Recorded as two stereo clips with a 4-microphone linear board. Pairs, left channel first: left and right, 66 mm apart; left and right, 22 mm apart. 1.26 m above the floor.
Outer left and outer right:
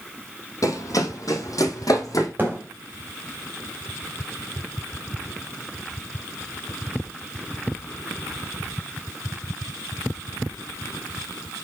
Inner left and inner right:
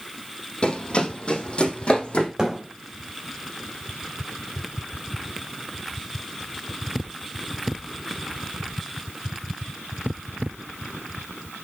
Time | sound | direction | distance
0.6 | running footsteps | 60° left (ahead or behind) | 2.5 m
2.4 | a thud | 30° right (ahead or behind) | 3 m